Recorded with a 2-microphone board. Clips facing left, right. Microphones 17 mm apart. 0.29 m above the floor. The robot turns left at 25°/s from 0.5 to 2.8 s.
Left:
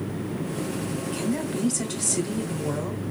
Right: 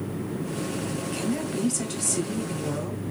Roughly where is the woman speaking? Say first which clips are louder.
Left 1 dB; behind.